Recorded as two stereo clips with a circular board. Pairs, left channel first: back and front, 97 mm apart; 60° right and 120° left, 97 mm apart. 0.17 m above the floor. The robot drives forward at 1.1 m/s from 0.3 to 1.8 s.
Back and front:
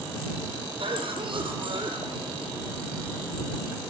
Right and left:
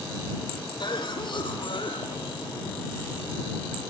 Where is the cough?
25° right, 6 m; by 2.5 s 30° right, 5 m.